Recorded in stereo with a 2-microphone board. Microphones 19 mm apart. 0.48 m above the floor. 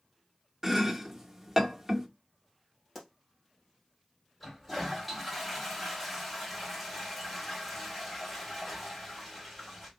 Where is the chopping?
20° right (ahead or behind), 0.7 m.